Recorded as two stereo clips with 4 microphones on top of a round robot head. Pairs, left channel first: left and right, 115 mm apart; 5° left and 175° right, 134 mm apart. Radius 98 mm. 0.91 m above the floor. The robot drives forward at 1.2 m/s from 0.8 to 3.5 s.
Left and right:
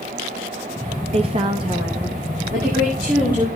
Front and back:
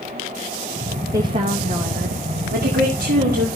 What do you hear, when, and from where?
1.1 s a woman speaking: 110° right, 1.2 m; by 2.4 s 155° right, 2 m
2.5 s a woman speaking: 165° right, 1.9 m; by 3.5 s 170° right, 3 m